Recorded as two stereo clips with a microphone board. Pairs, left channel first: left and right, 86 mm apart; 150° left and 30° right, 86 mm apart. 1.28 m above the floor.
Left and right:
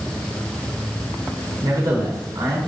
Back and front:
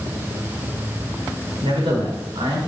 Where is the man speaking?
40° right, 5.5 m.